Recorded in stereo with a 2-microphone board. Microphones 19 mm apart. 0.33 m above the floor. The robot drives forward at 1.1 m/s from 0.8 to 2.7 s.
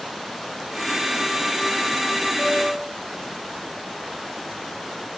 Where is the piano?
50° left (ahead or behind), 2 m; by 2.9 s 55° left (ahead or behind), 2 m.